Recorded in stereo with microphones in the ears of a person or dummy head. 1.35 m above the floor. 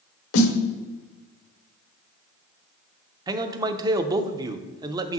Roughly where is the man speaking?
Centre.